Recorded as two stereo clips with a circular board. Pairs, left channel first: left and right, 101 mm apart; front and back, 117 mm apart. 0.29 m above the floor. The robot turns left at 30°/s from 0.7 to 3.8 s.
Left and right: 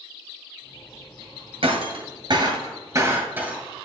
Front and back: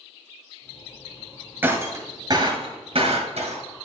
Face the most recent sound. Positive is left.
turn(degrees=-170)